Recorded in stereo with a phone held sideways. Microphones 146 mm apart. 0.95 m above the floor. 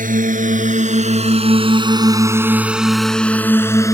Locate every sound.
0.0 s a drone: 70° right (ahead or behind); by 3.9 s 25° left (ahead or behind)